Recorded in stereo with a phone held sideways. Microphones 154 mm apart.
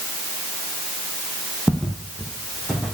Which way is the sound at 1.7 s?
5° left (ahead or behind).